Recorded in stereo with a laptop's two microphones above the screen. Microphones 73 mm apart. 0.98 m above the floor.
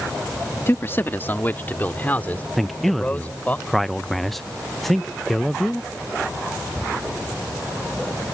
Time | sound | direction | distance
0.7 | a man speaking | 35° left (ahead or behind) | ?
2.6 | a man speaking | 5° left (ahead or behind) | ?